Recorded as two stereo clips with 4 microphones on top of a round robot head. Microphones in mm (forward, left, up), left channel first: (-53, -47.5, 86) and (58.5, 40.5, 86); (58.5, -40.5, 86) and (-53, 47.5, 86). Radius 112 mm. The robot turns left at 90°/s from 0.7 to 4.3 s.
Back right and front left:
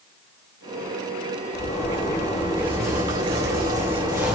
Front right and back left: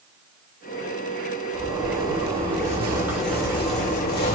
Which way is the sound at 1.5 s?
160° right.